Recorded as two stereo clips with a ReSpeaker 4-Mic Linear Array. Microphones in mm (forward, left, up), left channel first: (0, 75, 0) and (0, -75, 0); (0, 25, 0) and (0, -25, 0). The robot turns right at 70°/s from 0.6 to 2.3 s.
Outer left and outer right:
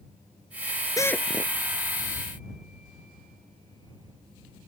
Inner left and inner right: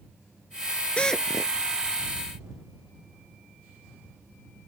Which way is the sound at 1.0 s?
155° left.